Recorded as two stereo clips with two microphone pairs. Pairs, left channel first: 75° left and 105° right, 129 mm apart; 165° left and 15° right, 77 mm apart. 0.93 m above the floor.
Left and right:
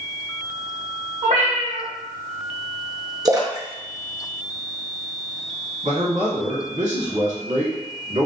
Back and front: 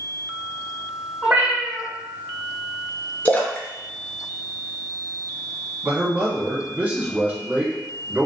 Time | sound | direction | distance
1.2 | a cat meowing | 95° right | 1.1 m
3.2 | a splash | 145° right | 0.6 m
5.8 | a man speaking | 90° right | 1.6 m